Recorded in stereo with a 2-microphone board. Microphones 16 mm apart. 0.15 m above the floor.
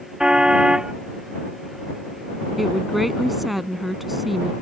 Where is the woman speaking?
5° right (ahead or behind).